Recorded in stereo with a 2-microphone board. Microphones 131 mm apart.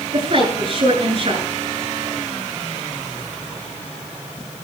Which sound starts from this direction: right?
A woman speaking, at 0.1 s.